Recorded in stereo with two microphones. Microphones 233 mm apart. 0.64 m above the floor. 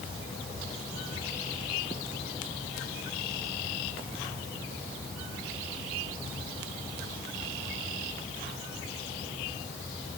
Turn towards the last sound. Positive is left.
No sound to turn to.